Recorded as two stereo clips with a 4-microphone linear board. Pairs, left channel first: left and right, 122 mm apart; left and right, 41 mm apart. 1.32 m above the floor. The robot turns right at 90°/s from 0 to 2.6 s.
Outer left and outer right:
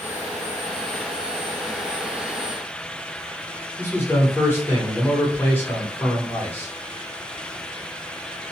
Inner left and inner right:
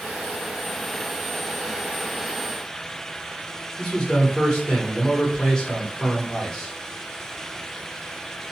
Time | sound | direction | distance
3.8 | a man speaking | 15° left (ahead or behind) | 1.1 m